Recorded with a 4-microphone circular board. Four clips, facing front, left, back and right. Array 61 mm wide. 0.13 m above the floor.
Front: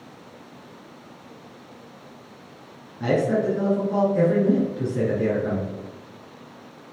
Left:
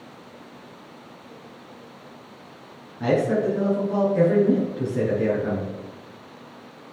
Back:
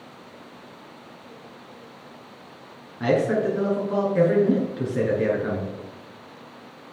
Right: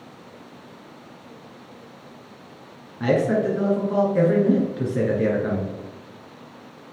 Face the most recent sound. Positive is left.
turn(degrees=-140)